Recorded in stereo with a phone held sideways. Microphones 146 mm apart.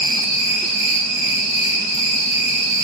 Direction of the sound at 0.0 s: 40° left (ahead or behind).